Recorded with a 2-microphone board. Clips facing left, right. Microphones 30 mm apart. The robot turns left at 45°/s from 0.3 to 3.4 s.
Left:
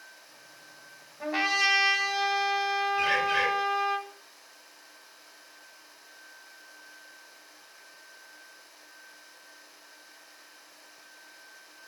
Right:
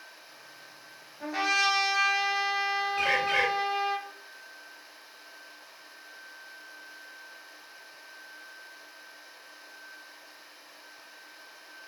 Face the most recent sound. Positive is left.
turn(degrees=-75)  # may be behind; listen again after turning